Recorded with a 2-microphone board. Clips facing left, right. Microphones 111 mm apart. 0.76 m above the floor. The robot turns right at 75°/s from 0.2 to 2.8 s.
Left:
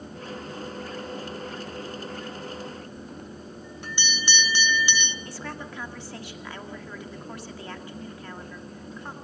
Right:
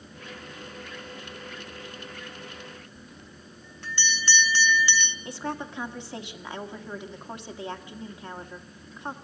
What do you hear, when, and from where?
3.0 s a bell: 15° left (ahead or behind), 1.1 m
5.2 s a woman speaking: 20° right (ahead or behind), 1.9 m